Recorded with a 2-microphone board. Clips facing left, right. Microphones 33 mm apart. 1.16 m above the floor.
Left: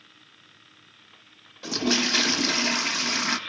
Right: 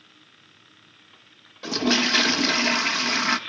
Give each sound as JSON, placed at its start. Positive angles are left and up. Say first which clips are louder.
{"t": 1.6, "sound": "a toilet flushing", "louder": "right 3 dB", "side_deg": -15, "distance_m": 0.7}